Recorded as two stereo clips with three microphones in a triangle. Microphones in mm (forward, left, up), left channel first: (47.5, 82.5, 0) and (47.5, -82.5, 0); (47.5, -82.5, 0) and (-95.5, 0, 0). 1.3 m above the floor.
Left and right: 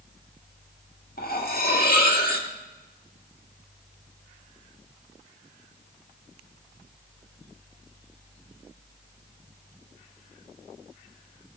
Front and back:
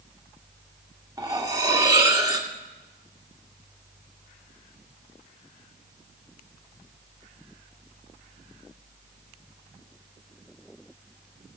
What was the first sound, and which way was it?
Cutlery clinking, 85° left.